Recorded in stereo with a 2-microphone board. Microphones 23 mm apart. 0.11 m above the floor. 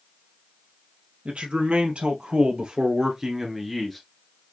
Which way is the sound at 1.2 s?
65° right (ahead or behind).